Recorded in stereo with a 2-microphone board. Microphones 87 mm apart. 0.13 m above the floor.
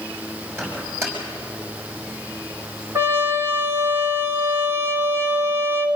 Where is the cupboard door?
I don't hear a cupboard door.